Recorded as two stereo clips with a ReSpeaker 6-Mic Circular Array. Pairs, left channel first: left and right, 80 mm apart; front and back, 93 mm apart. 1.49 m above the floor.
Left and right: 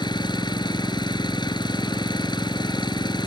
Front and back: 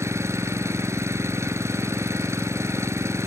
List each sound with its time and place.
0.0 s an engine running: 120° left